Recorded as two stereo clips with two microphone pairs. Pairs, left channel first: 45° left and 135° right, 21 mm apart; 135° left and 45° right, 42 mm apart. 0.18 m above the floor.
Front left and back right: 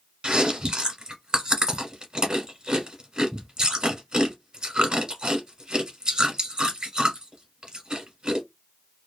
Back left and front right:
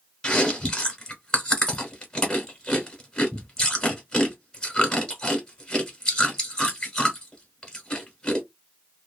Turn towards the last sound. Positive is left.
turn(degrees=-155)